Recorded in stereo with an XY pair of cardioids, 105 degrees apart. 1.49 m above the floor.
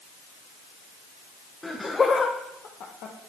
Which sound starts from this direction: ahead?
Laughter, at 1.6 s.